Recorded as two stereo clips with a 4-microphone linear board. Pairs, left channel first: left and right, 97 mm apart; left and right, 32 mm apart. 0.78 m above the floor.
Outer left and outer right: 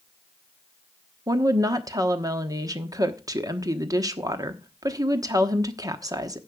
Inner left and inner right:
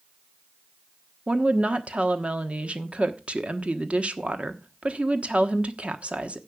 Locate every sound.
1.3 s a woman speaking: 40° right (ahead or behind), 1.1 m